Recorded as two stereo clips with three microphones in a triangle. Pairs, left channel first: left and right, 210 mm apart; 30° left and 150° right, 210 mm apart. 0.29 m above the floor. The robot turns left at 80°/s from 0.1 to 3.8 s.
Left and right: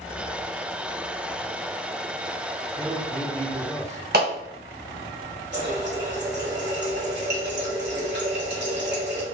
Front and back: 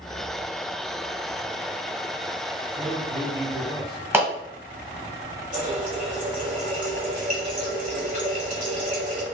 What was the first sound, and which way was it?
A man speaking, 160° right.